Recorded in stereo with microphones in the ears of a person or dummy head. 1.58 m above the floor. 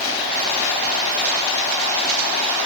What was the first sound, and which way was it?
Only background noise.